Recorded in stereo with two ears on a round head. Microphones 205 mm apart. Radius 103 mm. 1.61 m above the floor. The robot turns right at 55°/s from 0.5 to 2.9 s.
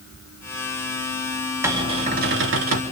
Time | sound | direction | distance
1.6 | a cupboard door | 170° right | 3 m